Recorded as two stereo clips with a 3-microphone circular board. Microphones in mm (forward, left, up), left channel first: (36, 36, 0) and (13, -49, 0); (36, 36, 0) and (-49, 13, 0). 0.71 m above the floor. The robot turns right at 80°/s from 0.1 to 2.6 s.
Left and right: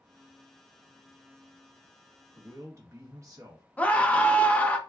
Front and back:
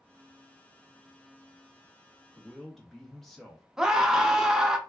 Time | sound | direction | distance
2.4 | a man speaking | 90° right | 0.9 m
3.8 | a scream | 120° left | 0.5 m